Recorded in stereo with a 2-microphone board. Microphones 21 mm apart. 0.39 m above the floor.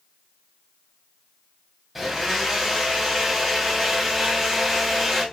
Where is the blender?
10° right (ahead or behind), 1.8 m.